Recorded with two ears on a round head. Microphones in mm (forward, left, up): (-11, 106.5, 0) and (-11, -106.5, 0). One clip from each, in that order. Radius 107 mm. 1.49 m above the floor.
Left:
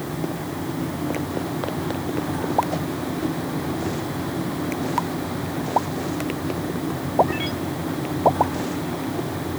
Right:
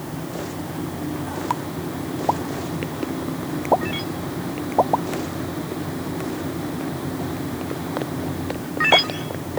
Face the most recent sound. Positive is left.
No sound to turn to.